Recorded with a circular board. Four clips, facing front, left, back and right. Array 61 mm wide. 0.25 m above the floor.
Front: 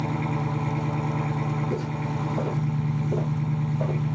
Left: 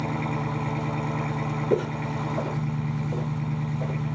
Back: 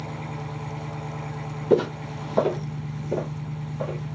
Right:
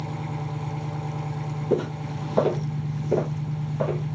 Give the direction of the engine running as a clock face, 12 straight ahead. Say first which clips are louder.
Left 4 dB, front 7 dB; 10 o'clock.